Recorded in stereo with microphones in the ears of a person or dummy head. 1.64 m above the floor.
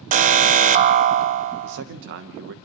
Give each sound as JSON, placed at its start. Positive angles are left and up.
{"t": 0.1, "sound": "an alarm", "side_deg": -30, "distance_m": 0.6}
{"t": 1.6, "sound": "a man speaking", "side_deg": -60, "distance_m": 1.0}